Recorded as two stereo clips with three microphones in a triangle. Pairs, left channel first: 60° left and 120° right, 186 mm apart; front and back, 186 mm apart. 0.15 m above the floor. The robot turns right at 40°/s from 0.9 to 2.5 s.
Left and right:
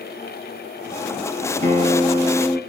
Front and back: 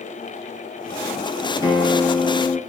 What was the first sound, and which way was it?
A guitar, 110° right.